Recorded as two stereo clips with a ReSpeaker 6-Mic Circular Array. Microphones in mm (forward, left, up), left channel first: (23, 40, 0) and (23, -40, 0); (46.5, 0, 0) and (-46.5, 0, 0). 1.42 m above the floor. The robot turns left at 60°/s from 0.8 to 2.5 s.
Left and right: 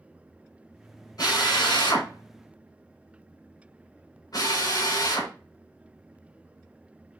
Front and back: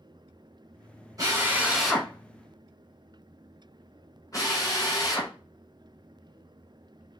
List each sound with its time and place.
1.2 s a drill: 130° left, 4 m; by 5.3 s 50° left, 4 m